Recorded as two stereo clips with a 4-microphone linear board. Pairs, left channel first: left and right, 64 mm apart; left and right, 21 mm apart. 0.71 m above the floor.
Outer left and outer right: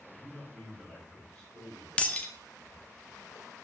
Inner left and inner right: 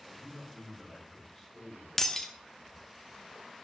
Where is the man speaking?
Centre (ahead or behind), 3.5 m.